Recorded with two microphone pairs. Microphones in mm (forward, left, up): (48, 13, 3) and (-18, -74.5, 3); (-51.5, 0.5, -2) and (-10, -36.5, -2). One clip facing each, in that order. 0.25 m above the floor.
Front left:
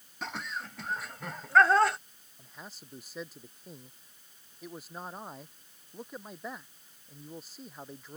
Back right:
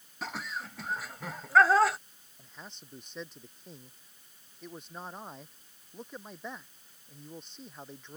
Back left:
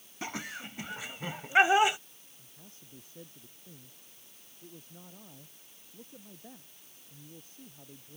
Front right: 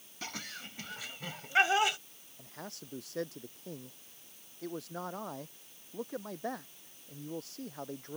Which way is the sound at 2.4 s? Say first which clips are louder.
Front left 1 dB, front right 12 dB; 35° right.